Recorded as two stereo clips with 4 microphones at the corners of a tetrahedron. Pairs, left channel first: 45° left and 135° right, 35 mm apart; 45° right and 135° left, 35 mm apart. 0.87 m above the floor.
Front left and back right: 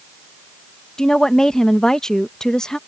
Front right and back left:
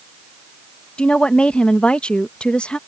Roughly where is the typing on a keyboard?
I don't hear typing on a keyboard.